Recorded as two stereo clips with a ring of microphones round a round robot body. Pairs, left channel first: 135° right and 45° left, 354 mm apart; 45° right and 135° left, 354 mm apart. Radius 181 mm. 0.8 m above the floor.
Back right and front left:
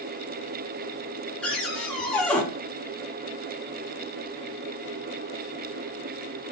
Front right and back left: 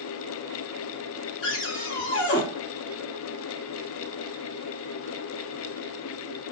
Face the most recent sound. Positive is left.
turn(degrees=-50)